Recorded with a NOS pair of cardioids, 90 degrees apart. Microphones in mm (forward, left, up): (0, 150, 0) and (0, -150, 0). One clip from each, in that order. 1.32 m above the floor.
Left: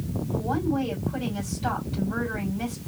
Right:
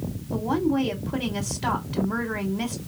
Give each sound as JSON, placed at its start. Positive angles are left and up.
{"t": 0.3, "sound": "a woman speaking", "azimuth_deg": -70, "distance_m": 3.5}